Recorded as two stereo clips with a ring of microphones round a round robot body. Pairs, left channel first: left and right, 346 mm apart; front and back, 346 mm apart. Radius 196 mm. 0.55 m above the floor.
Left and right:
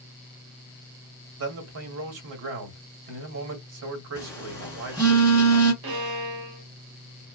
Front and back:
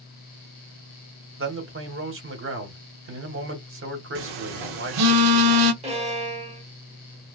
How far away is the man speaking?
About 1.2 m.